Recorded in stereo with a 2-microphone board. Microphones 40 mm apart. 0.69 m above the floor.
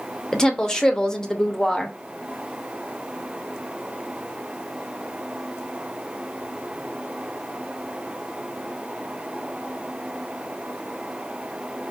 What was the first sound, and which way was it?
A woman speaking, 20° left (ahead or behind).